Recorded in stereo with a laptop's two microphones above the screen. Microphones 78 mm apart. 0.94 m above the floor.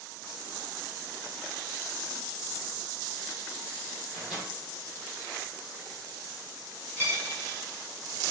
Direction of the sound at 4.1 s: 5° right (ahead or behind).